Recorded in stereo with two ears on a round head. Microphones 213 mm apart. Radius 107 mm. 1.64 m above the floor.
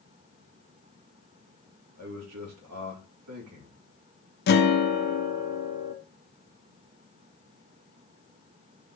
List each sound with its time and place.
2.0 s a man speaking: 75° right (ahead or behind), 3 m
4.5 s a guitar: 45° left (ahead or behind), 1.1 m